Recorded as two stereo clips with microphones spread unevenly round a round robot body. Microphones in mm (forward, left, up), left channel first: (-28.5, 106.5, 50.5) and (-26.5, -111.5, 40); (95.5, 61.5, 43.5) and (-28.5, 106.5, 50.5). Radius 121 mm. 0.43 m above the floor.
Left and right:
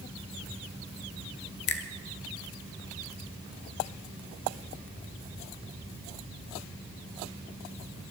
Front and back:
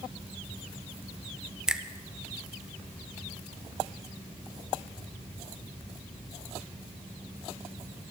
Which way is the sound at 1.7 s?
75° left.